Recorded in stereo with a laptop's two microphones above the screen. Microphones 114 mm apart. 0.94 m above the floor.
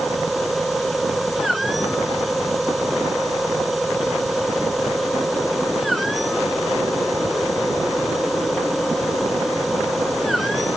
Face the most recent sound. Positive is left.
turn(degrees=0)  # may be behind; listen again after turning